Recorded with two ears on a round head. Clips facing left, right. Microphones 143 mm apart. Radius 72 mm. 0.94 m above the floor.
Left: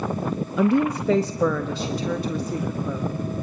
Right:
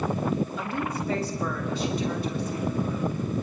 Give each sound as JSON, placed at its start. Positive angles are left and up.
{"t": 0.6, "sound": "a woman speaking", "side_deg": 50, "distance_m": 0.7}